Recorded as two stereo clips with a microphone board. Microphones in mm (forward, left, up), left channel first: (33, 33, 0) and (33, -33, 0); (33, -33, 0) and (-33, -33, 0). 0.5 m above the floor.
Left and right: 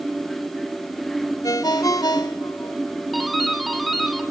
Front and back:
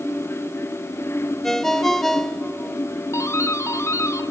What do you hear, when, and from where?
1.4 s a ringtone: 85° left, 0.9 m
3.1 s a doorbell: straight ahead, 1.9 m